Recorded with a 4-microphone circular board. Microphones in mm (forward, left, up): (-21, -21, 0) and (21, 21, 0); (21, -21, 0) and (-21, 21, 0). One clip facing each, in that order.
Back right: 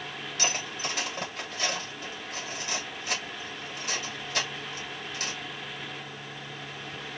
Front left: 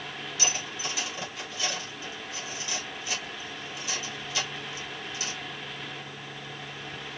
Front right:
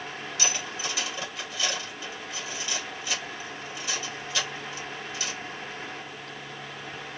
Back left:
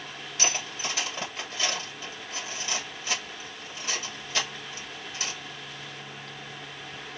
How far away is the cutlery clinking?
About 1.9 m.